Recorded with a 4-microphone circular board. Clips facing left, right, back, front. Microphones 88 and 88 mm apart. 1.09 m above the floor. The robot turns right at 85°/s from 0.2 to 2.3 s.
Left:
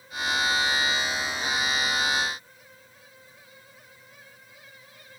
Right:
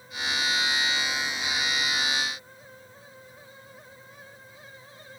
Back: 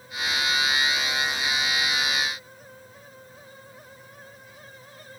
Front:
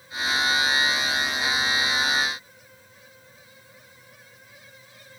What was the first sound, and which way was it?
Only background noise.